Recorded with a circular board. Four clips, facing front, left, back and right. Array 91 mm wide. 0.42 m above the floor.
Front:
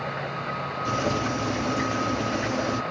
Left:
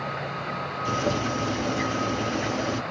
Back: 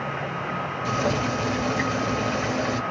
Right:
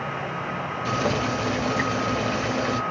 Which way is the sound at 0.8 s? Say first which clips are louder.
Right 1 dB, back 1 dB; 120° right.